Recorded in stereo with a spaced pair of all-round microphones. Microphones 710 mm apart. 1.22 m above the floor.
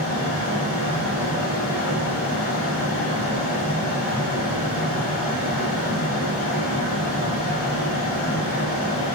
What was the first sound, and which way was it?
A fan, 20° left (ahead or behind).